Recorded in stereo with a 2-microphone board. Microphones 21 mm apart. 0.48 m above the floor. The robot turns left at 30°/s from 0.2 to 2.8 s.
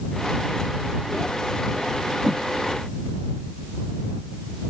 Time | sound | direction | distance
2.2 | a whoosh | 75° right (ahead or behind) | ?